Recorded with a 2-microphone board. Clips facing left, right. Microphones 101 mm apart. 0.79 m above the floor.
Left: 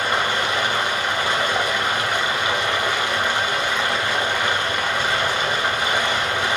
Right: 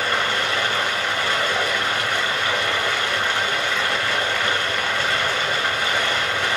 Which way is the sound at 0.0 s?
15° left (ahead or behind).